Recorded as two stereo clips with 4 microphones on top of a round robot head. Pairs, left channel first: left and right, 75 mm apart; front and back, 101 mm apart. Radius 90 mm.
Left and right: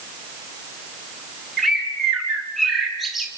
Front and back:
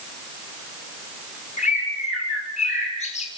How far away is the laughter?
I don't hear laughter.